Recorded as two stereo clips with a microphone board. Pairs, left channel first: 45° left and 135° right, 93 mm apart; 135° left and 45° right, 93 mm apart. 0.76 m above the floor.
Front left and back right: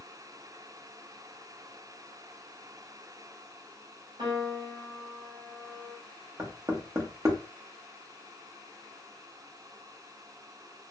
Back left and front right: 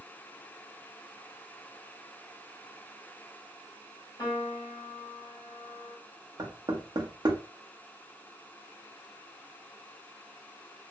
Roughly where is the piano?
Behind.